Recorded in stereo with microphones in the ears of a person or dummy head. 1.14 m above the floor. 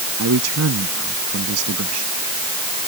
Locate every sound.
0.2 s a man speaking: 85° right